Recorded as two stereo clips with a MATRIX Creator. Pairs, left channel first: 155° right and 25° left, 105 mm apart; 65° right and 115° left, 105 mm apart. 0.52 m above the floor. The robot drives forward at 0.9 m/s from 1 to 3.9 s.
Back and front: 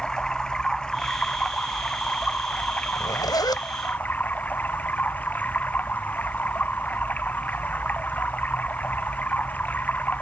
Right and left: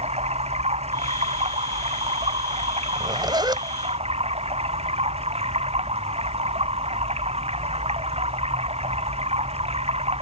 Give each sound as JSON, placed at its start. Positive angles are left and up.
{"t": 0.0, "sound": "running water", "azimuth_deg": 120}
{"t": 3.0, "sound": "a zipper", "azimuth_deg": 155}